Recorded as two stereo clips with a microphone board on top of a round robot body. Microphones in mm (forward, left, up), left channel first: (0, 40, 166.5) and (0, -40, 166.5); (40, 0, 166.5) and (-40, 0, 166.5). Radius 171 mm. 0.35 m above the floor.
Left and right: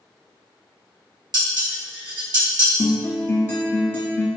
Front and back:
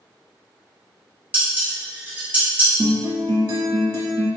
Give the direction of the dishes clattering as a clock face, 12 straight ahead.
4 o'clock.